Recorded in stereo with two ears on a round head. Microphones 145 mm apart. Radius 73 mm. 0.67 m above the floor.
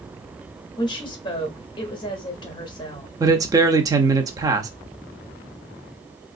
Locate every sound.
0.8 s a woman speaking: 30° left (ahead or behind), 1.0 m
3.2 s a man speaking: 20° right (ahead or behind), 0.6 m